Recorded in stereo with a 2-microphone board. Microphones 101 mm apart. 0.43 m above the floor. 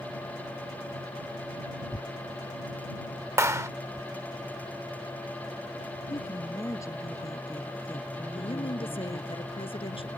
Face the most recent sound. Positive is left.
turn(degrees=65)  # may be behind; listen again after turning